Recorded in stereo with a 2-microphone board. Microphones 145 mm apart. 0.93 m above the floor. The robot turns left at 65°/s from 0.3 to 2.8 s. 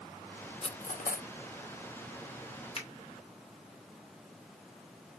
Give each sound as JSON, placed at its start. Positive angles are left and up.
{"t": 0.6, "sound": "cutlery clinking", "side_deg": 40, "distance_m": 0.5}
{"t": 2.8, "sound": "a finger snap", "side_deg": 45, "distance_m": 2.5}